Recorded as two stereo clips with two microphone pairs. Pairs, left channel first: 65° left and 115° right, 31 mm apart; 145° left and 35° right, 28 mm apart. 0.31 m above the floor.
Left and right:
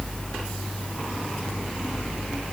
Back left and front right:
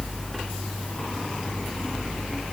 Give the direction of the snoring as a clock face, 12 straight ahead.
No snoring in this recording.